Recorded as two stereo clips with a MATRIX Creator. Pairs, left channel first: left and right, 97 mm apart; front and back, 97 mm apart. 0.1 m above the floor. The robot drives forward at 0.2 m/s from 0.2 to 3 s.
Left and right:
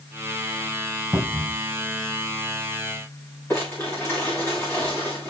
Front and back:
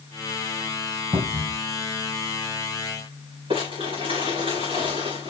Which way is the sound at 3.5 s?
155° left.